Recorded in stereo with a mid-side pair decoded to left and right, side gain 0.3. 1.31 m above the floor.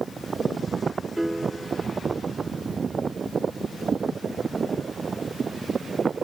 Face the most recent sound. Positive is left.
turn(degrees=-15)